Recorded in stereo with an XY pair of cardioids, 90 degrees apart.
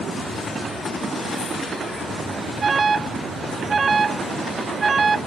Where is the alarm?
35° right.